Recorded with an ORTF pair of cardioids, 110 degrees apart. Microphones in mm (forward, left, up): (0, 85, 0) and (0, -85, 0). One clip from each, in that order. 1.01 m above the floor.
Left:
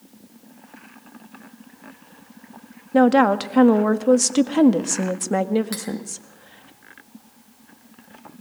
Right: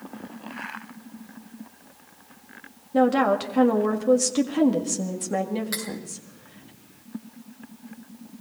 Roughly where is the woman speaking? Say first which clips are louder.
Left 4 dB; ahead left.